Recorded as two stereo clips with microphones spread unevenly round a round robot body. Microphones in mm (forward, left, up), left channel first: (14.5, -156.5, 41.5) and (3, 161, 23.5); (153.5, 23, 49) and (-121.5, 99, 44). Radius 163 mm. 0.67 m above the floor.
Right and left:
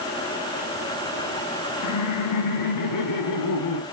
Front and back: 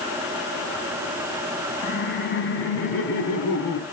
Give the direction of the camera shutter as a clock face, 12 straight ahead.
No camera shutter in this recording.